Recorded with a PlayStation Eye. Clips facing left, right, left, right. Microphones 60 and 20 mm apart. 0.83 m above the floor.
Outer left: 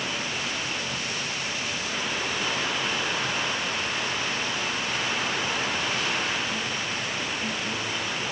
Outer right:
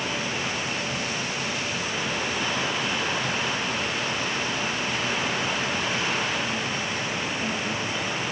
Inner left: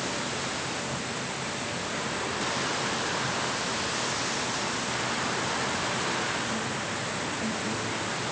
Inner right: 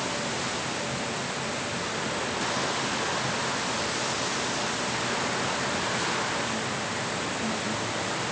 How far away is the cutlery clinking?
I don't hear cutlery clinking.